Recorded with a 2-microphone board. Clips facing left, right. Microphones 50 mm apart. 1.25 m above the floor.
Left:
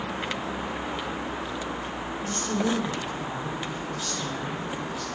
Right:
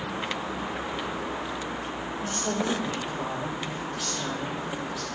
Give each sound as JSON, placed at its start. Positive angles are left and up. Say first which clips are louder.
{"t": 2.2, "sound": "a woman speaking", "louder": "left 1 dB", "side_deg": -80, "distance_m": 5.0}